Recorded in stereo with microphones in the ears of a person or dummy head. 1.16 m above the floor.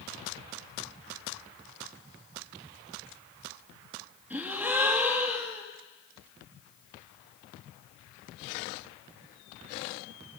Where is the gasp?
5° right (ahead or behind), 0.9 m.